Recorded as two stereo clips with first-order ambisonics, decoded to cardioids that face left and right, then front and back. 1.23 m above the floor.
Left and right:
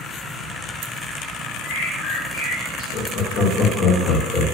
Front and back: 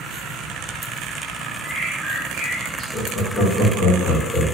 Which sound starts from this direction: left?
Laughter, at 2.9 s.